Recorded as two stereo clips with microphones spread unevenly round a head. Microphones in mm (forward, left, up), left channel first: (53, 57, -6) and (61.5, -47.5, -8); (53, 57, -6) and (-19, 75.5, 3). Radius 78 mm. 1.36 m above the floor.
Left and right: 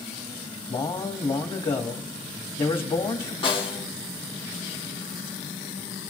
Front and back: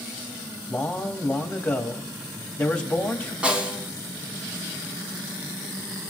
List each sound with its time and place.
0.7 s a man speaking: 60° left, 2.5 m
3.4 s a snare drum: 105° left, 1.8 m